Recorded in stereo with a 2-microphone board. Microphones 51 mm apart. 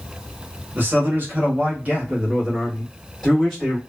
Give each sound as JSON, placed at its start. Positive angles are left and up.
{"t": 0.8, "sound": "a man speaking", "side_deg": -40, "distance_m": 1.1}